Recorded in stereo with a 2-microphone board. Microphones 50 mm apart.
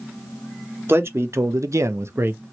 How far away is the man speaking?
About 0.9 m.